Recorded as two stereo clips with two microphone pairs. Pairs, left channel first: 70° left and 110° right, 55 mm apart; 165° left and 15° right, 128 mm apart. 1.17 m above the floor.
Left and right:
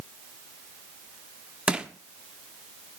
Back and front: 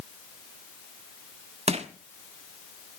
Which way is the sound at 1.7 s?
40° right.